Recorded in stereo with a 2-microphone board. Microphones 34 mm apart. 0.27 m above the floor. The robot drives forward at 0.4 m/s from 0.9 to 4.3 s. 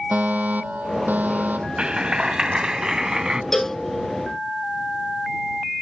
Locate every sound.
0.1 s a fire alarm: 60° right (ahead or behind)
1.8 s a clap: 30° right (ahead or behind); by 3.4 s 20° right (ahead or behind)
3.5 s a cowbell: 10° left (ahead or behind)